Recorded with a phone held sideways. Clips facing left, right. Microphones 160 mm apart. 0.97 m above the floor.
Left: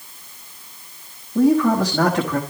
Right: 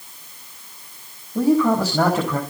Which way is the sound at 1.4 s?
5° right (ahead or behind).